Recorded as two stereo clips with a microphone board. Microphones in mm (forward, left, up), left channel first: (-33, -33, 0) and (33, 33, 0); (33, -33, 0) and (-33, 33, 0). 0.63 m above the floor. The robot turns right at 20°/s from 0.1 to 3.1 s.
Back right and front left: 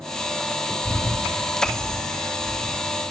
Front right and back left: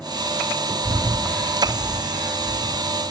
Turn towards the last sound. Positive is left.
turn(degrees=-155)